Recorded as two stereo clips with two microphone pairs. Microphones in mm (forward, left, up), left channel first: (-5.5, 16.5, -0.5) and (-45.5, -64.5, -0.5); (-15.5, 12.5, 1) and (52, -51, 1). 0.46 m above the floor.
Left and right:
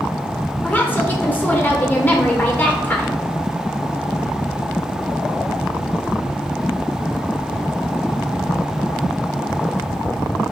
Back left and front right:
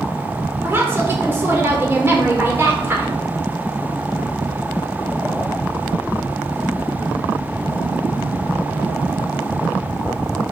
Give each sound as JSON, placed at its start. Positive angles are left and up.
{"t": 0.6, "sound": "a woman speaking", "azimuth_deg": 5, "distance_m": 1.2}